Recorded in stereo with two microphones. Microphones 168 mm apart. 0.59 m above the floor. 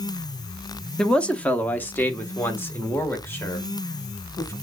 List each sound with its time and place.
1.0 s a man speaking: 5° left (ahead or behind), 0.7 m; by 4.5 s 15° left (ahead or behind), 2.5 m